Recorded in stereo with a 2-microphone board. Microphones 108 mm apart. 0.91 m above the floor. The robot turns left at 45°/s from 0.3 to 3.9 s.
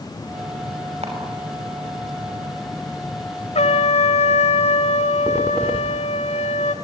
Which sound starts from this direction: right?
A camera shutter, at 1.0 s.